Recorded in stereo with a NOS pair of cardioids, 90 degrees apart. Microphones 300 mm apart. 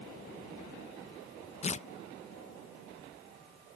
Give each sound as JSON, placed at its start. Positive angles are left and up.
{"t": 1.6, "sound": "tearing paper", "azimuth_deg": 20}